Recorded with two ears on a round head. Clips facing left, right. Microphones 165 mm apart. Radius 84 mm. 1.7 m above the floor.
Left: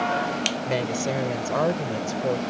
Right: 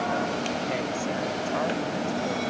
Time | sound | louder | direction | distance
0.7 | a woman speaking | left 3 dB | 55° left (ahead or behind) | ?